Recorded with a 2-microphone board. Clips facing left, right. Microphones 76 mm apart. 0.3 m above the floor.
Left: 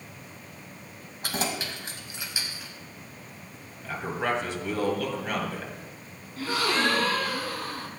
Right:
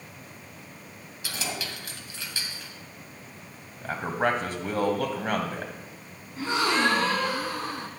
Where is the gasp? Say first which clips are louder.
Right 2 dB; 25° right (ahead or behind), 1.0 m.